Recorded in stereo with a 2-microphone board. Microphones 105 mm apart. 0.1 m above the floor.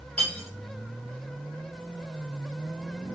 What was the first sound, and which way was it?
Cutlery clinking, 15° left (ahead or behind).